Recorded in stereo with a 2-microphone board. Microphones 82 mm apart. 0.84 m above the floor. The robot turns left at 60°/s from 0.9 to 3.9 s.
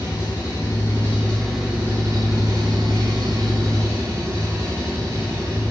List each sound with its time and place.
0.0 s an engine running: 35° left, 8.5 m; by 5.7 s 145° right, 8.5 m